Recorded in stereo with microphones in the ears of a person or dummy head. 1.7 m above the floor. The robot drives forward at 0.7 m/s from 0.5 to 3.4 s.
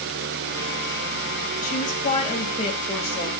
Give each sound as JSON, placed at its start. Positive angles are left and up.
{"t": 1.6, "sound": "a woman speaking", "side_deg": 45, "distance_m": 2.0}